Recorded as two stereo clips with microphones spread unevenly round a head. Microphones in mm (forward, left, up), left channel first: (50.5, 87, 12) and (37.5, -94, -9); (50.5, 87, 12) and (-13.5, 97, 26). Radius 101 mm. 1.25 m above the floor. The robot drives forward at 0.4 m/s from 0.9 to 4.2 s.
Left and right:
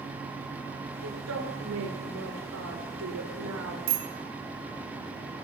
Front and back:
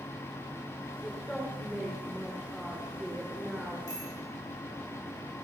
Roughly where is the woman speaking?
Right.